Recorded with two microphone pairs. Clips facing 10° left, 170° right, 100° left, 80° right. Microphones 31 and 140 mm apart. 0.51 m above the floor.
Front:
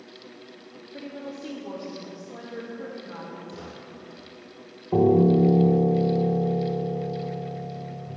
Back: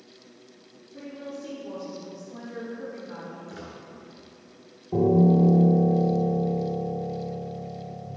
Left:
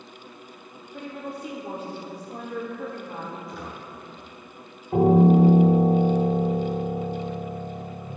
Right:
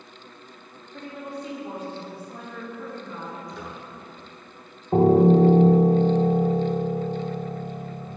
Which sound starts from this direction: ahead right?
A piano, at 4.9 s.